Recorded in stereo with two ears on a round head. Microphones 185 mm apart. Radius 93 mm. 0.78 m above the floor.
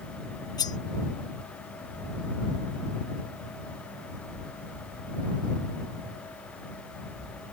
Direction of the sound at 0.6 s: 20° left (ahead or behind).